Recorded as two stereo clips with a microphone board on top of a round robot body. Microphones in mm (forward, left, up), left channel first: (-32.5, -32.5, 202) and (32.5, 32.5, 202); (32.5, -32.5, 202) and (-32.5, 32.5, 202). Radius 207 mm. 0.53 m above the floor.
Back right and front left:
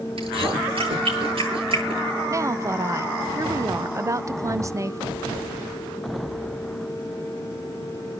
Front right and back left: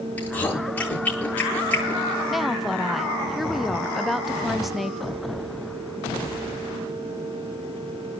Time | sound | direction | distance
0.2 | chewing | 30° left | 10 m
2.3 | a woman speaking | 45° left | 1.0 m